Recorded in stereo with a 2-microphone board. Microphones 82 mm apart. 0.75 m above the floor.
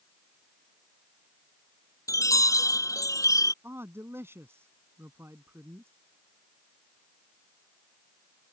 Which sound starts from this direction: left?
A chime, at 2.1 s.